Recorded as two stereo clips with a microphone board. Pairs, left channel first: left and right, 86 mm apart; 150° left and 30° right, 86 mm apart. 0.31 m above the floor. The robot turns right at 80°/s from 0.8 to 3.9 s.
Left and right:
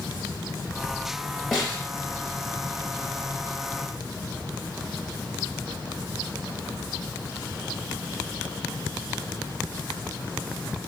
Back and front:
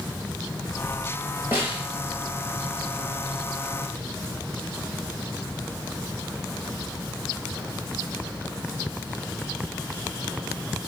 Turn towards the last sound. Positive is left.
turn(degrees=-165)